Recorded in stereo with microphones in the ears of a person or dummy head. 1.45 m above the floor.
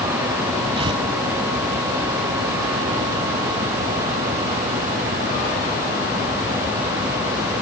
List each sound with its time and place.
0.8 s tearing paper: 30° right (ahead or behind)